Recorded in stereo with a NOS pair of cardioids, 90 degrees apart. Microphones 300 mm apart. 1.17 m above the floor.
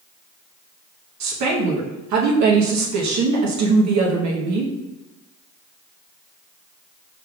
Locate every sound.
1.2 s a woman speaking: 65° right, 1.0 m